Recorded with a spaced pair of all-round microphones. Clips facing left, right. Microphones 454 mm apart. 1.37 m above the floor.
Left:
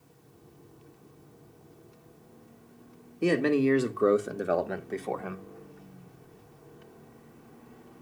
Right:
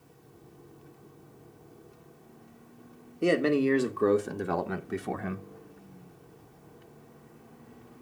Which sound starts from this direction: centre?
A man speaking, at 3.2 s.